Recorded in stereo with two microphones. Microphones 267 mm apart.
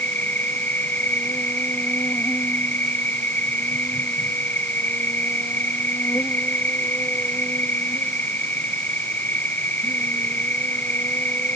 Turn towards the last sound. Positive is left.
turn(degrees=5)  # may be behind; listen again after turning